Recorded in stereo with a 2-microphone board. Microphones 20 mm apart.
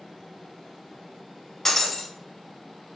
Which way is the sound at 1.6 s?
15° left (ahead or behind).